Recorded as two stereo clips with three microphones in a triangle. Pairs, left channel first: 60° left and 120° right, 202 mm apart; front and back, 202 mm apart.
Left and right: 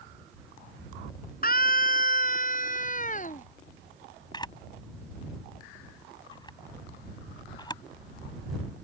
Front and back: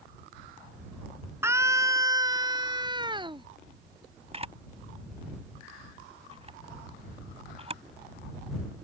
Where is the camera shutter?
125° left.